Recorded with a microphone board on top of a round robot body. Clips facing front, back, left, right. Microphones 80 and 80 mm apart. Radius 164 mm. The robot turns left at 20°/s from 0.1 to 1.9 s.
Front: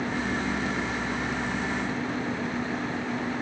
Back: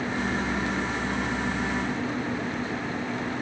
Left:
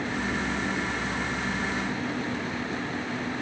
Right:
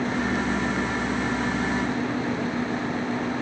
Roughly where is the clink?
I don't hear a clink.